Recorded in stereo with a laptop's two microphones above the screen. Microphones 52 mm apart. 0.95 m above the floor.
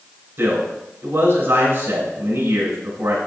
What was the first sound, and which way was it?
A man speaking, 60° right (ahead or behind).